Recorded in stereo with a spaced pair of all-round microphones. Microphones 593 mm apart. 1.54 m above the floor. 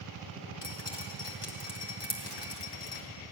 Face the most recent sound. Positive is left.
turn(degrees=45)  # may be behind; listen again after turning